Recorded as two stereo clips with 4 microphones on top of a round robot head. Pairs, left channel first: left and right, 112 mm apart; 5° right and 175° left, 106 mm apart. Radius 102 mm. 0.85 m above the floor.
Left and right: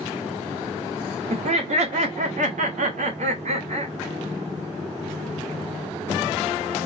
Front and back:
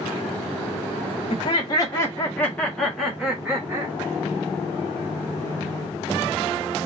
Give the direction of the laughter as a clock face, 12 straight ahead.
2 o'clock.